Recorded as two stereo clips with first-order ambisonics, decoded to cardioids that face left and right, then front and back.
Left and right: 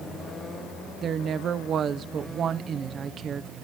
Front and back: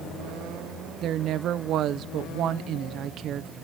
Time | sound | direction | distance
1.0 | a woman speaking | 140° right | 0.5 m